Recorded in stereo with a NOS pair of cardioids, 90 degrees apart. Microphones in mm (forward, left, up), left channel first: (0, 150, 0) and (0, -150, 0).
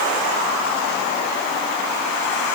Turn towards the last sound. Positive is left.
No sound to turn to.